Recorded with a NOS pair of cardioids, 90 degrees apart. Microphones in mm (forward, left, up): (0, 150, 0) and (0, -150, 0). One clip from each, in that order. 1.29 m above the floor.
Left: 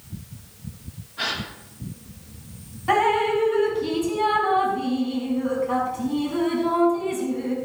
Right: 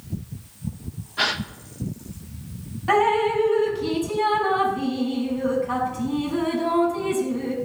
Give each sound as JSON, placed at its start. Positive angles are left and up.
{"t": 1.2, "sound": "a gasp", "azimuth_deg": -55, "distance_m": 1.5}
{"t": 2.9, "sound": "dripping", "azimuth_deg": -15, "distance_m": 5.0}